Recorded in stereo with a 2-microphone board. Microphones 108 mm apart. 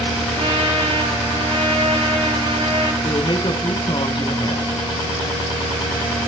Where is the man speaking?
45° left (ahead or behind), 1.5 m.